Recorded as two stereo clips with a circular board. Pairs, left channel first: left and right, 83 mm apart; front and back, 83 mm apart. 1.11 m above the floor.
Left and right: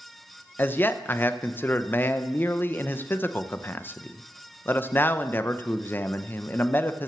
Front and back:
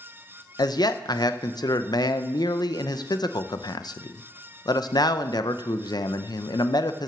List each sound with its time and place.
0.6 s a man speaking: 30° left, 0.6 m